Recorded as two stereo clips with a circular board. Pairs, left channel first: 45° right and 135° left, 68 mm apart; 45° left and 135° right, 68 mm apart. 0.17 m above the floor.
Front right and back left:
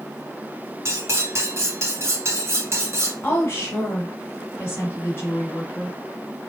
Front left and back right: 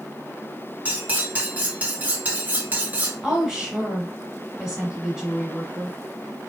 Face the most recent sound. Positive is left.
turn(degrees=-60)